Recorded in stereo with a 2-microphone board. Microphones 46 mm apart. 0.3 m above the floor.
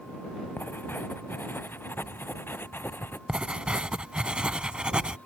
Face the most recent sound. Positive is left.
turn(degrees=-20)  # may be behind; listen again after turning